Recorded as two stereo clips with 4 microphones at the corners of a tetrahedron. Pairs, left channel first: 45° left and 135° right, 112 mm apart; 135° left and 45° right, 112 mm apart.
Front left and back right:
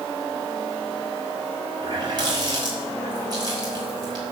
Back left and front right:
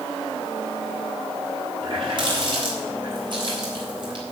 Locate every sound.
1.8 s a running tap: 85° right, 3.5 m